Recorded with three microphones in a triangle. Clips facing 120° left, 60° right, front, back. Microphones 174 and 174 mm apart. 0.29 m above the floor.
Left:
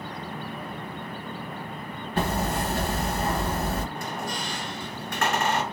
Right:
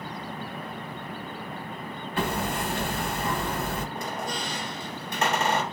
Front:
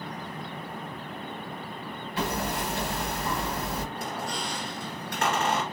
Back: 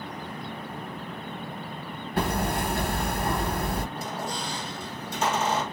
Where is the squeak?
10° left, 2 m.